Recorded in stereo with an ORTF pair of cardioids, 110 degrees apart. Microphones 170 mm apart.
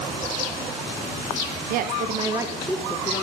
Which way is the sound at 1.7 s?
60° right.